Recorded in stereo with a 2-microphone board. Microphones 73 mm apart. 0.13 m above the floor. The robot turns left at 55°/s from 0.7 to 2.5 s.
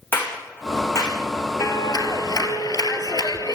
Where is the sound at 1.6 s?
125° left, 2 m; by 3.5 s 75° left, 2 m.